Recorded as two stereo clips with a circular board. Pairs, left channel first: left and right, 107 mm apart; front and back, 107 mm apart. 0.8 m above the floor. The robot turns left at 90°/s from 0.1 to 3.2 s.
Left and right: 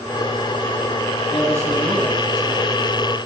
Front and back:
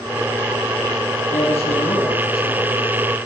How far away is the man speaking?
About 6.5 m.